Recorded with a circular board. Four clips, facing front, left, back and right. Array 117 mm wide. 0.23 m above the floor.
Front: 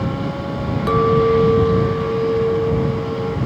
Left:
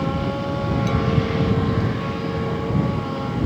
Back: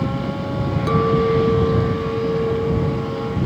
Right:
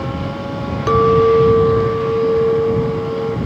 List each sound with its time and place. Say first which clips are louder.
0.9 s a clink: right 17 dB, front 3 dB; 80° right